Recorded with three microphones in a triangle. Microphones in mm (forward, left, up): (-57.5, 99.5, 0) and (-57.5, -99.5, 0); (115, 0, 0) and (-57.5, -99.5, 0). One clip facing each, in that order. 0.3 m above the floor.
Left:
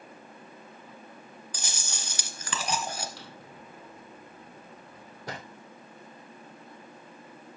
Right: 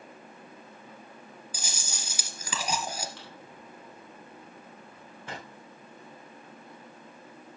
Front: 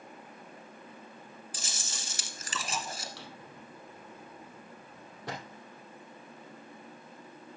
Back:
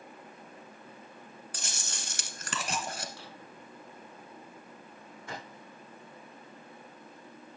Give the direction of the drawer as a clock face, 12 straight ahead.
11 o'clock.